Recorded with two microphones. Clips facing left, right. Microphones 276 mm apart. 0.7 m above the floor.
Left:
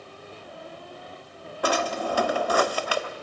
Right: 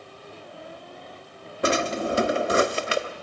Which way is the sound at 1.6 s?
25° right (ahead or behind).